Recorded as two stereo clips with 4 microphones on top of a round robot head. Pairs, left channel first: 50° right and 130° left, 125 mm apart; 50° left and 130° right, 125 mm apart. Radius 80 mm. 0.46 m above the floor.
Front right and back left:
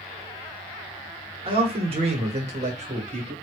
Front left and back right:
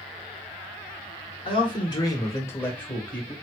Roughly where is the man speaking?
Left.